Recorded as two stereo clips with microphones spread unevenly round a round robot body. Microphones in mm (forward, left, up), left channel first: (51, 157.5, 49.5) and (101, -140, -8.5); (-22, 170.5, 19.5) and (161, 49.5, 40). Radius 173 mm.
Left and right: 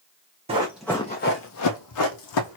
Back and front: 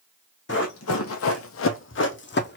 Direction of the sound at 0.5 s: 160° right.